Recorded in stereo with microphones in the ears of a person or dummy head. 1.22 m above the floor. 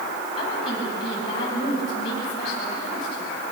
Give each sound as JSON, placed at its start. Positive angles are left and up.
{"t": 0.4, "sound": "a woman speaking", "side_deg": 45, "distance_m": 8.0}